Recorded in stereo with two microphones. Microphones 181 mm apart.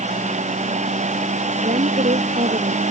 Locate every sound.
1.6 s a woman speaking: 45° right (ahead or behind)